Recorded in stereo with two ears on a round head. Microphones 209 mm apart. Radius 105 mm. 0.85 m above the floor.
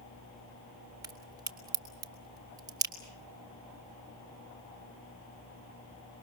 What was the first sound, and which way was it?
A crack, 15° right (ahead or behind).